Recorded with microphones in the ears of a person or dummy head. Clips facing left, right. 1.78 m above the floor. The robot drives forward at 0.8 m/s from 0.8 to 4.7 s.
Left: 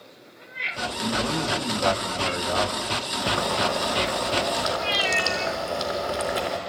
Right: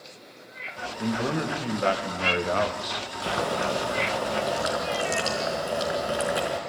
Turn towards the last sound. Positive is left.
turn(degrees=-15)  # may be behind; listen again after turning